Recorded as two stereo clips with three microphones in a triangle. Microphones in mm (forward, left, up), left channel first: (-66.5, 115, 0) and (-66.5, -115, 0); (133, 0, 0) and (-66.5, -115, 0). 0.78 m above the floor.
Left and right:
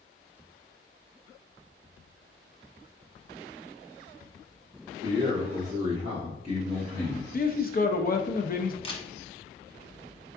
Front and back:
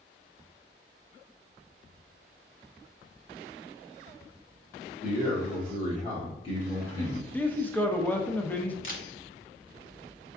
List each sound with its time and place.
5.0 s a man speaking: 15° right, 1.9 m; by 7.2 s 50° right, 1.1 m
7.3 s a man speaking: 110° left, 0.5 m
8.8 s a camera shutter: 30° left, 1.0 m